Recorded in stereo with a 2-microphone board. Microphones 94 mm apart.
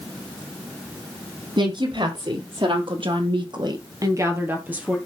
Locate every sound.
1.6 s a woman speaking: 60° right (ahead or behind), 4 m; by 5.0 s 10° right (ahead or behind), 2.5 m